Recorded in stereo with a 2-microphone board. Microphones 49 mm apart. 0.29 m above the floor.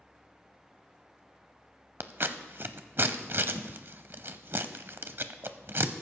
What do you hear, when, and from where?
2.0 s scissors: 50° right (ahead or behind), 0.6 m